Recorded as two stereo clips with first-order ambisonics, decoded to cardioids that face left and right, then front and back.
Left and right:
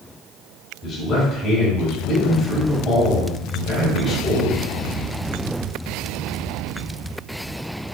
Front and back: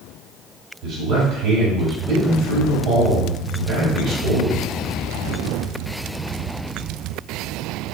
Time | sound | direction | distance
0.8 | a man speaking | 155° left | 1.7 m